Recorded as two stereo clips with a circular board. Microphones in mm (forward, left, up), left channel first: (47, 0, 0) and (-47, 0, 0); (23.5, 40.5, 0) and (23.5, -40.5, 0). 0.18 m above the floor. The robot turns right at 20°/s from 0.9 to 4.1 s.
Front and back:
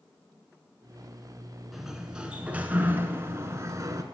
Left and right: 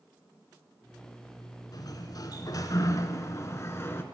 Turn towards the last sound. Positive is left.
turn(degrees=140)